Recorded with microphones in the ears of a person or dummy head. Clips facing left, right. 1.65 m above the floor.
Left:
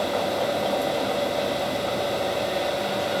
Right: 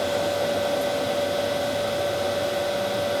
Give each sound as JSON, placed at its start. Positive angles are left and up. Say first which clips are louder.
{"t": 0.0, "sound": "a machine running", "louder": "right 1 dB", "side_deg": -25, "distance_m": 1.0}